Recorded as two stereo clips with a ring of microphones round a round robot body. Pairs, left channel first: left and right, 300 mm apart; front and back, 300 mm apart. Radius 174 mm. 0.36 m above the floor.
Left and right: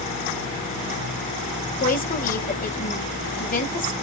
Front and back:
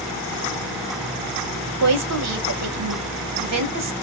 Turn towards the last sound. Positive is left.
turn(degrees=150)